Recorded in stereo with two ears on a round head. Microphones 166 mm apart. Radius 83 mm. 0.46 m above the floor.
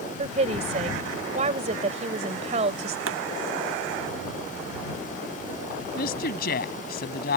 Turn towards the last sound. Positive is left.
turn(degrees=55)  # may be behind; listen again after turning